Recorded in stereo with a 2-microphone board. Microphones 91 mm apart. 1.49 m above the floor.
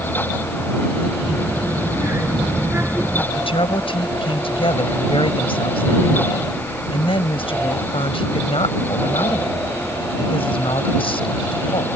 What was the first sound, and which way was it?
A child speaking, 30° right (ahead or behind).